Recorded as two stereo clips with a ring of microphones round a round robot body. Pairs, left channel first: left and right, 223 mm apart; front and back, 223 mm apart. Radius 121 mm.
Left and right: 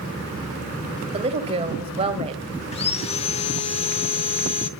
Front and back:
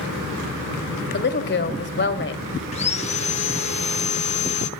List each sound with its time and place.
1.1 s a woman speaking: 25° right, 2.5 m
2.7 s sawing: 40° left, 1.0 m